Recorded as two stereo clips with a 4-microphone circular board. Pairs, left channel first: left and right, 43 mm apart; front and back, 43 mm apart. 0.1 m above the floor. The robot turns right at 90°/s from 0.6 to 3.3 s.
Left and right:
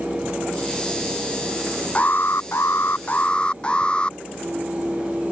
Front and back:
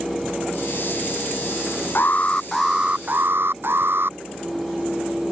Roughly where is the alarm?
Ahead left.